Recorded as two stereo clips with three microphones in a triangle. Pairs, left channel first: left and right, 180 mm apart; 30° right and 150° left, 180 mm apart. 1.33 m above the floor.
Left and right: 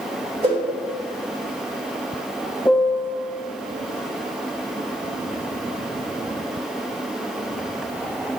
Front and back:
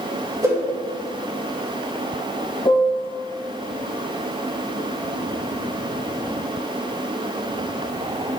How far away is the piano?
About 0.6 m.